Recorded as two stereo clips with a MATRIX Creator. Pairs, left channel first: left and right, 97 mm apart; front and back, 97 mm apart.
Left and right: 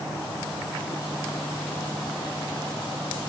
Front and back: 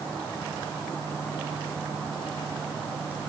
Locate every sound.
Only background noise.